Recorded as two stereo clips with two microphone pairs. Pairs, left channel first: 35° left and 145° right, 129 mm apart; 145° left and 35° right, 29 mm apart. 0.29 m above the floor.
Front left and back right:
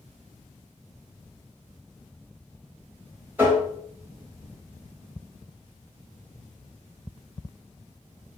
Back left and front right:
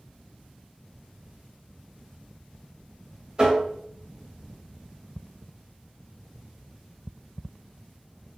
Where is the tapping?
80° right, 1.3 m.